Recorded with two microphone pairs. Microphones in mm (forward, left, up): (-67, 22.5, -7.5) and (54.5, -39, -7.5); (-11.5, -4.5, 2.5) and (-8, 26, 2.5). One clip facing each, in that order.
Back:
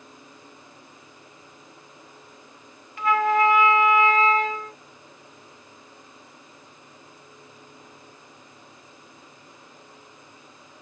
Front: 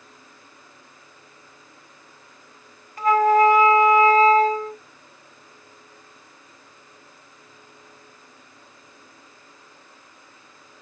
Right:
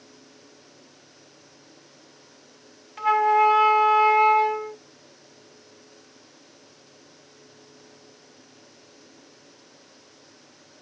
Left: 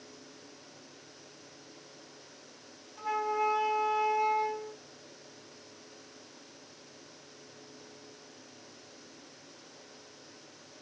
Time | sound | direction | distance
3.0 | a flute | 75° right | 1.4 m